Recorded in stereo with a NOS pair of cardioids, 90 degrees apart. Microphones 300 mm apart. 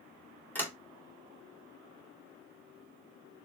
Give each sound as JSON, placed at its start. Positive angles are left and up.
{"t": 0.6, "sound": "a sliding door", "azimuth_deg": 5, "distance_m": 2.5}